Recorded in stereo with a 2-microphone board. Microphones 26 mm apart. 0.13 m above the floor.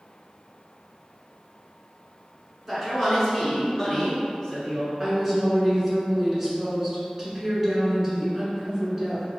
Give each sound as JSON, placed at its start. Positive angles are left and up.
{"t": 2.7, "sound": "a man speaking", "side_deg": -20, "distance_m": 1.5}
{"t": 5.0, "sound": "a woman speaking", "side_deg": -15, "distance_m": 1.2}